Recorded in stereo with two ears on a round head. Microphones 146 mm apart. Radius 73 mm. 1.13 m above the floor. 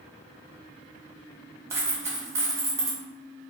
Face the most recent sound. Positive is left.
turn(degrees=-15)  # may be behind; listen again after turning